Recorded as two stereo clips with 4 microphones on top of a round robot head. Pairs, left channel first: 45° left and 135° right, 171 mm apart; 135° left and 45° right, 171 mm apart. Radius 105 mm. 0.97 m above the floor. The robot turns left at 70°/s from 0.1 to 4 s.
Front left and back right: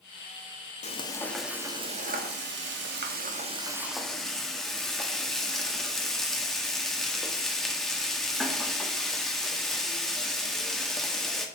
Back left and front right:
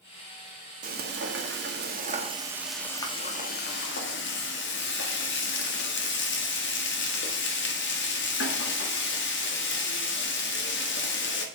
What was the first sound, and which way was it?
Frying, 5° right.